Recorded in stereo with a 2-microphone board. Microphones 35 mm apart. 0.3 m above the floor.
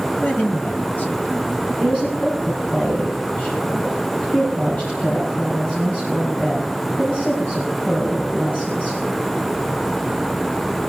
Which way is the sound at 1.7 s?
45° left (ahead or behind).